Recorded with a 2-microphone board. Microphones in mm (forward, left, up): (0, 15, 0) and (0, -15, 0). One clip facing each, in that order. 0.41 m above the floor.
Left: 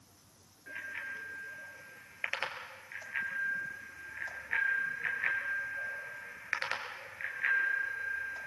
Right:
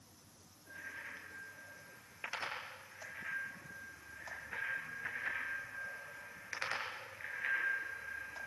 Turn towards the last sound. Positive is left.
turn(degrees=20)  # may be behind; listen again after turning